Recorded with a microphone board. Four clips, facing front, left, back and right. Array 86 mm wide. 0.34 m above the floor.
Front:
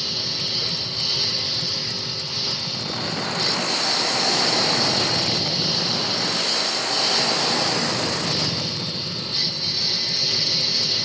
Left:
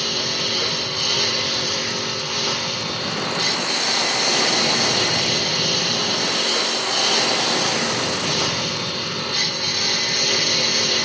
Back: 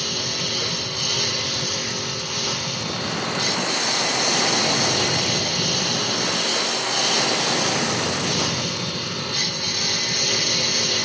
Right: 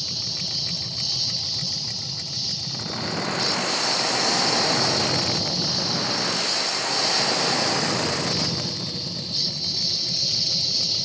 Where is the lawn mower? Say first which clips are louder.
Left 12 dB, back 4 dB; 105° left; by 11.1 s 110° left.